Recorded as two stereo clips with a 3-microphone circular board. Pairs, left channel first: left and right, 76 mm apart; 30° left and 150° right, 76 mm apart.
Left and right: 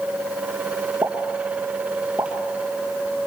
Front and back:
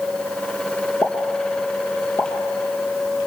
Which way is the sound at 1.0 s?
20° right.